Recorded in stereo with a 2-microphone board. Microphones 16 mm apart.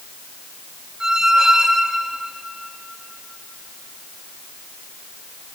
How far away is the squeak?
About 1.8 m.